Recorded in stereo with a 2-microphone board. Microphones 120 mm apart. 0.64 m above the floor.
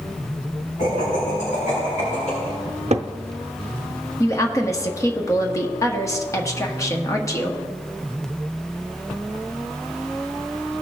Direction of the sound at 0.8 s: 80° left.